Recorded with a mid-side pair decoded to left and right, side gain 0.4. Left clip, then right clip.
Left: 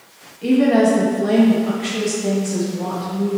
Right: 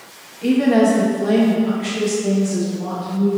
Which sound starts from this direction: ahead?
A woman speaking, at 0.4 s.